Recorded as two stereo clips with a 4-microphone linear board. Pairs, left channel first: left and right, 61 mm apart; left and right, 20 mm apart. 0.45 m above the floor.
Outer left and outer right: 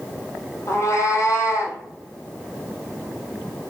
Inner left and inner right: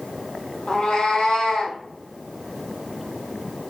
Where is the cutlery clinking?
I don't hear cutlery clinking.